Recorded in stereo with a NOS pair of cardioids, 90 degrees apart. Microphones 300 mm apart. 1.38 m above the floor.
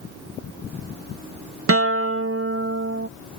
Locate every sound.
1.7 s a guitar: 50° right